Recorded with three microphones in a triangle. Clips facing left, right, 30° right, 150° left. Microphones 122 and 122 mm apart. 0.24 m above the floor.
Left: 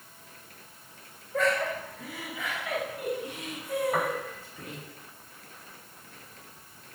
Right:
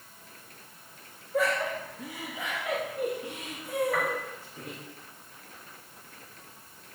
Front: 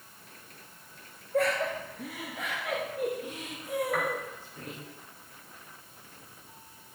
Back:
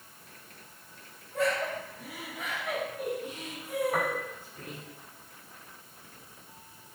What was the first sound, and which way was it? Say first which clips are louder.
Laughter: left 1 dB, front 2 dB; 10° right.